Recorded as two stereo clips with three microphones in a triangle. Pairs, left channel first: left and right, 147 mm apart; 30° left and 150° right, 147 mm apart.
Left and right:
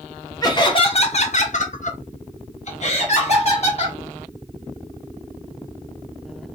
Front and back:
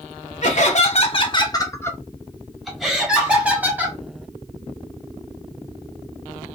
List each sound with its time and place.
0.4 s laughter: 30° left, 0.7 m; by 4.0 s 135° left, 1.6 m